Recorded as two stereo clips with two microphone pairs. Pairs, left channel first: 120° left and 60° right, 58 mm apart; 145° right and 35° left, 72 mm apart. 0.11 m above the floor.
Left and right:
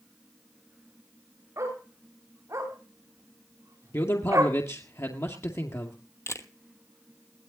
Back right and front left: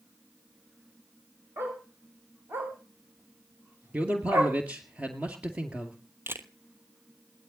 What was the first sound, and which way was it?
A dog barking, 25° right.